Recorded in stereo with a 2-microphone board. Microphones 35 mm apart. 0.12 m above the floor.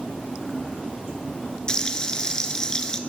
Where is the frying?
20° left (ahead or behind), 0.9 m.